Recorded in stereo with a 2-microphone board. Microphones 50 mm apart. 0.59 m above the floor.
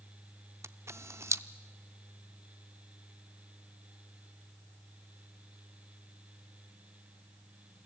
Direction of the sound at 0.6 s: 70° right (ahead or behind).